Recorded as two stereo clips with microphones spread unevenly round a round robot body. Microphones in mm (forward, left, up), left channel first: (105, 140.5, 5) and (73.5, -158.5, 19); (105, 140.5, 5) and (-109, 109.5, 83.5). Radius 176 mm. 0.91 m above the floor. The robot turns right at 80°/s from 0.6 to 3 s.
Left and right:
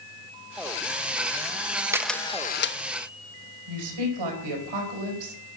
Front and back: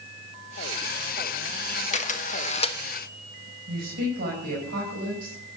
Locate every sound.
1.9 s a camera shutter: 15° right, 0.9 m; by 2.8 s 55° left, 0.9 m
3.7 s a woman speaking: 110° right, 5 m